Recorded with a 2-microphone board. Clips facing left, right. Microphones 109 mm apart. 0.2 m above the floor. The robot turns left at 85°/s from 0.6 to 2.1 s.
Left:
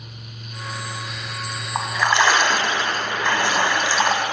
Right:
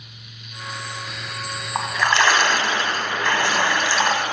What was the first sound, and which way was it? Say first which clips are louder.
A splash: left 1 dB; centre (ahead or behind).